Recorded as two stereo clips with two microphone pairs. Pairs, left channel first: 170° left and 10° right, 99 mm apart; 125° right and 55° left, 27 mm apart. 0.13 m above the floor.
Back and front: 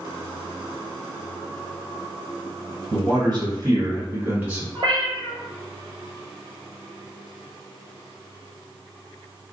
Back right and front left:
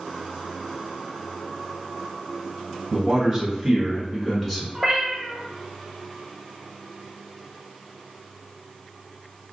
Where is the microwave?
I don't hear a microwave.